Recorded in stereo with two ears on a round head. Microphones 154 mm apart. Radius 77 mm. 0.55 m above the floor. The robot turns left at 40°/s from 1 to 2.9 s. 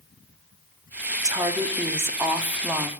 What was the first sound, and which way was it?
A woman speaking, 20° right (ahead or behind).